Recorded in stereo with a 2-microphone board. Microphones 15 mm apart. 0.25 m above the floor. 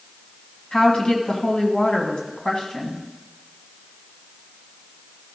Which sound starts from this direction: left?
A woman speaking, at 0.7 s.